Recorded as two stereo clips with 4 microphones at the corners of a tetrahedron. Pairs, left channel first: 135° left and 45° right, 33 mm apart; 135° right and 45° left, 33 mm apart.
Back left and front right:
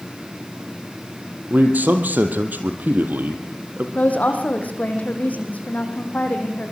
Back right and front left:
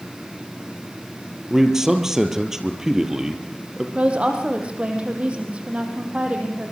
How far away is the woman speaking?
About 4 m.